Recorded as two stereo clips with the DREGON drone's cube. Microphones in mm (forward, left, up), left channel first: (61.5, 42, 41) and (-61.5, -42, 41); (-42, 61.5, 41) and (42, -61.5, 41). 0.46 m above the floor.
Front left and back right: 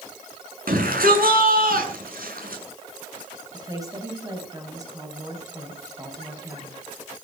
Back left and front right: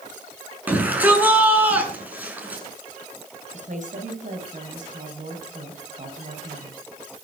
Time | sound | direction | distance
0.7 | a shout | 135° right | 7.5 m
3.5 | a woman speaking | 80° right | 4 m